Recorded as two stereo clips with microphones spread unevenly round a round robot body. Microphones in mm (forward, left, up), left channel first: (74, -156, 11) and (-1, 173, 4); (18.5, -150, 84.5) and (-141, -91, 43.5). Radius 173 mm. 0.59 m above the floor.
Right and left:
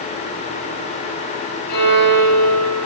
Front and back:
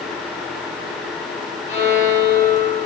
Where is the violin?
70° right, 1.0 m.